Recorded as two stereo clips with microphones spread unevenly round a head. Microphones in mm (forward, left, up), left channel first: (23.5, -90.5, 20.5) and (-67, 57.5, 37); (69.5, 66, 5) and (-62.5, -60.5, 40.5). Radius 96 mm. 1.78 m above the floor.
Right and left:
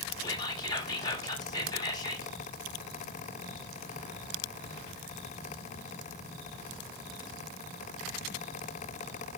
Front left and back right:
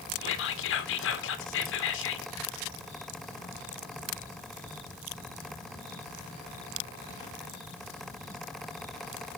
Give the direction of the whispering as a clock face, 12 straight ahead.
12 o'clock.